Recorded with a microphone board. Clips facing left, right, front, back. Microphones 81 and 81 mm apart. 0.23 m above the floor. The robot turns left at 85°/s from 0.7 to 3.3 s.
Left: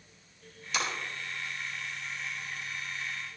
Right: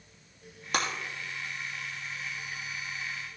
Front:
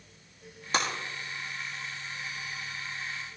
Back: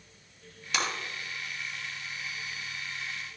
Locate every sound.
0.7 s breaking glass: 55° right, 3 m; by 0.9 s 65° right, 3 m